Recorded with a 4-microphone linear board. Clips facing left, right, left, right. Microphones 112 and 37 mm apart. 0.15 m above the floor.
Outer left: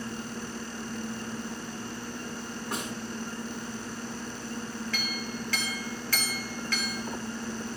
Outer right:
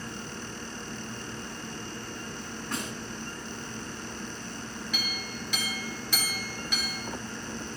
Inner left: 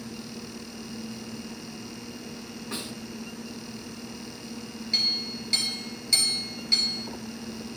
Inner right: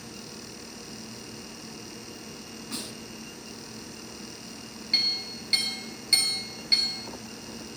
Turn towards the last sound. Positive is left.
turn(degrees=-15)  # may be behind; listen again after turning